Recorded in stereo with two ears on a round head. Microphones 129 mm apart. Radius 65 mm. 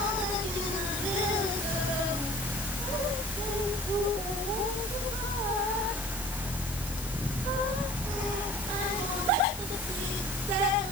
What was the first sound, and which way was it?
Only background noise.